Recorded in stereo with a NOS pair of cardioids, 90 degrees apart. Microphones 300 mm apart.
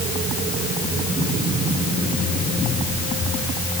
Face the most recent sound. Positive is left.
No sound to turn to.